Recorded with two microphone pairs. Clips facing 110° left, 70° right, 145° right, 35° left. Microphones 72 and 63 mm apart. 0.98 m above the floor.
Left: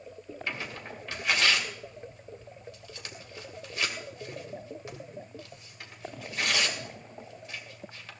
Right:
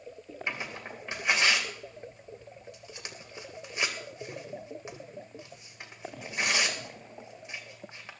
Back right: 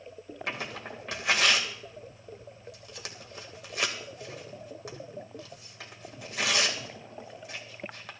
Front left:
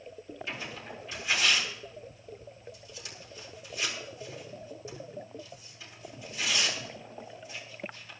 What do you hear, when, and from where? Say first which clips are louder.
0.5 s tearing paper: right 1 dB, back right 5 dB; 135° right, 2 m